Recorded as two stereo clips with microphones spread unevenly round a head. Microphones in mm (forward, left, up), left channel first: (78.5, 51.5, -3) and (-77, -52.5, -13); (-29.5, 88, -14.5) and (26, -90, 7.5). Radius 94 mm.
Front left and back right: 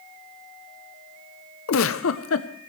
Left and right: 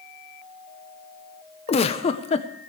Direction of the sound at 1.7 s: 50° left.